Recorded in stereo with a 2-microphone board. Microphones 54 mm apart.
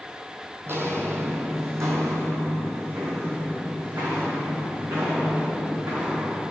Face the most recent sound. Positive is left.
turn(degrees=-85)